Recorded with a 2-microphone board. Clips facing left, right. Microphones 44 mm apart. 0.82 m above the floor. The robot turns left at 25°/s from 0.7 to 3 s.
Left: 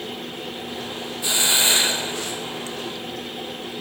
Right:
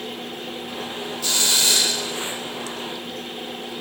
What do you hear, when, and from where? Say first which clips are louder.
1.2 s a hiss: left 2 dB; 140° left, 0.6 m; by 2.8 s 105° left, 0.6 m